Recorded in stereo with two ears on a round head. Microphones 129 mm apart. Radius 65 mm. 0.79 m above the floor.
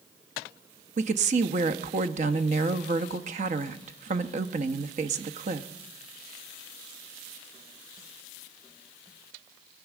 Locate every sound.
1.0 s a woman speaking: 50° right (ahead or behind), 1.0 m